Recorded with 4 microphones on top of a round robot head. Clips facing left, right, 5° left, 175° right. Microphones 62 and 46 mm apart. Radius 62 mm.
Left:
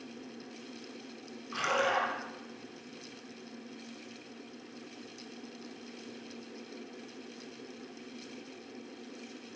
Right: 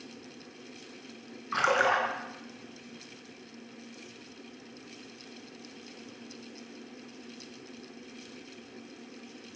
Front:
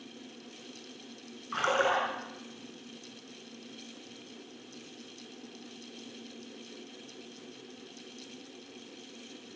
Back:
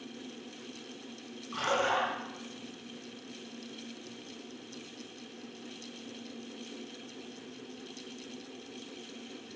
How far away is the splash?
About 5.5 m.